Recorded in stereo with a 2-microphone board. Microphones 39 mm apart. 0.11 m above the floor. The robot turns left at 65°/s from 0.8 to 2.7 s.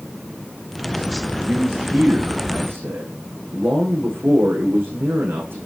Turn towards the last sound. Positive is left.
turn(degrees=-105)